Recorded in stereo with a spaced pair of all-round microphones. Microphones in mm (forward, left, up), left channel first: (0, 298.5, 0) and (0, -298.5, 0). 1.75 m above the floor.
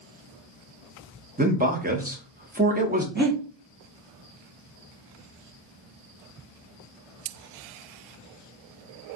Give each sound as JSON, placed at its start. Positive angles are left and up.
{"t": 1.4, "sound": "a man speaking", "side_deg": -15, "distance_m": 0.7}
{"t": 3.1, "sound": "breathing", "side_deg": -15, "distance_m": 0.8}